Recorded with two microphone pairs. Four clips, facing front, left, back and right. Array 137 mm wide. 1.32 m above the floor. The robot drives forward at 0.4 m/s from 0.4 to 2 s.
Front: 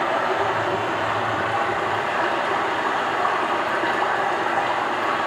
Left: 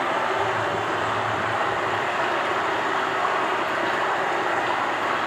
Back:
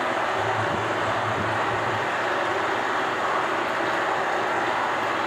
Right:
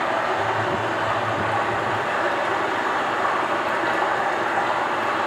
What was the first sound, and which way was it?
Running water, 55° right.